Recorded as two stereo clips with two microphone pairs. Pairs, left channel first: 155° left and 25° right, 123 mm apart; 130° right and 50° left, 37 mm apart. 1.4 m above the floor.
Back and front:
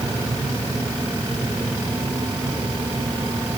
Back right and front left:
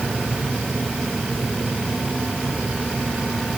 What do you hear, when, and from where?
Only background noise.